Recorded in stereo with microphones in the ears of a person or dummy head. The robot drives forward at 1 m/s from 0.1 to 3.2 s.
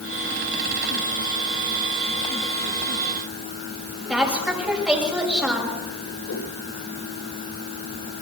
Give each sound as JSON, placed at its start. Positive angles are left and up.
{"t": 4.1, "sound": "a woman speaking", "side_deg": -5, "distance_m": 7.0}
{"t": 6.3, "sound": "a whoosh", "side_deg": 85, "distance_m": 6.5}